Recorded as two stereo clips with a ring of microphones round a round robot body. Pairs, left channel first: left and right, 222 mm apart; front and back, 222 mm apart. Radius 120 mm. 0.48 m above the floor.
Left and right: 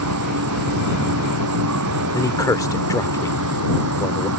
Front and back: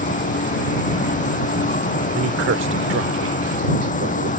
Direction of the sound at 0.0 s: 55° right.